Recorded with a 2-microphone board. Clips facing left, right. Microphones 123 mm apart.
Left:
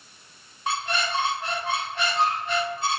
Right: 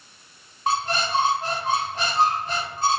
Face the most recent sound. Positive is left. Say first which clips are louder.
# right 4 dB
turn(degrees=-35)  # may be behind; listen again after turning